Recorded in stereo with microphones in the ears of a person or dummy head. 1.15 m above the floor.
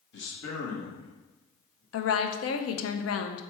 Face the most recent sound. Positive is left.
turn(degrees=70)  # may be behind; listen again after turning